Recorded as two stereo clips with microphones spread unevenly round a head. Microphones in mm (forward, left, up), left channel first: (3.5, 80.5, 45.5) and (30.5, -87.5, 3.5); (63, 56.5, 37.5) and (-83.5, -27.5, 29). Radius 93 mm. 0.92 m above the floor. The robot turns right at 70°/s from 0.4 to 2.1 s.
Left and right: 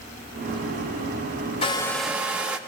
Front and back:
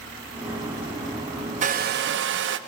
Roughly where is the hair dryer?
Behind.